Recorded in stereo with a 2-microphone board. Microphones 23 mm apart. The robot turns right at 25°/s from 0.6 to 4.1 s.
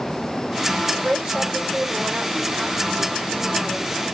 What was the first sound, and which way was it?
A woman speaking, 140° right.